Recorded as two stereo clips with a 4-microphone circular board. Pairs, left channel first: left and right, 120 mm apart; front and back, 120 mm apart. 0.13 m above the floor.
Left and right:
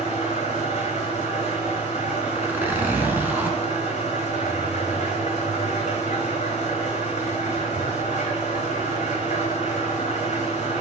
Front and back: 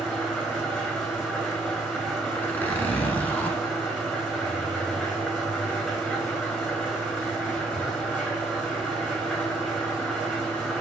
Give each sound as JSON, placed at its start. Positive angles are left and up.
{"t": 0.0, "sound": "an engine running", "azimuth_deg": 85, "distance_m": 2.5}
{"t": 2.4, "sound": "a zipper", "azimuth_deg": -45, "distance_m": 1.1}